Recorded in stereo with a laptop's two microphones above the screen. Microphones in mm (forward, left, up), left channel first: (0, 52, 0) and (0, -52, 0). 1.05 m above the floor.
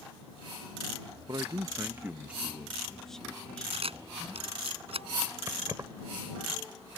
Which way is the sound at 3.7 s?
65° right (ahead or behind).